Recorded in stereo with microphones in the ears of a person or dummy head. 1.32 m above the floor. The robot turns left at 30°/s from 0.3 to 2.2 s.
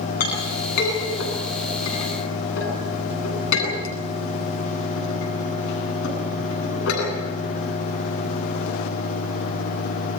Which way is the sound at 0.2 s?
50° left (ahead or behind).